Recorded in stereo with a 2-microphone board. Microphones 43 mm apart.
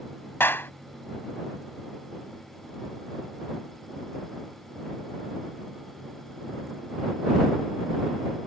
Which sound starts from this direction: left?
A clap, at 0.4 s.